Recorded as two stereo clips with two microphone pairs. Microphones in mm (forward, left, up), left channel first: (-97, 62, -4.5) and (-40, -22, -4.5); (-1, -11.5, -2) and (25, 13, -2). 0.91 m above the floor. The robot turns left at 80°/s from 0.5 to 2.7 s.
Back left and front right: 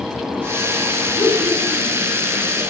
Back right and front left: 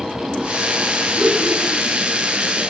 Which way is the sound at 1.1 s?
130° left.